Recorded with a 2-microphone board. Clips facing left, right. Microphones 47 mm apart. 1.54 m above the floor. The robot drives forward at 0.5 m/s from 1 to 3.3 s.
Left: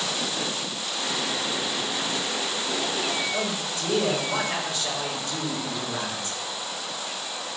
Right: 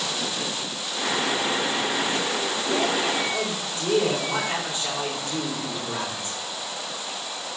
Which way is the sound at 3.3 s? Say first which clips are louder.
Even; 40° right (ahead or behind).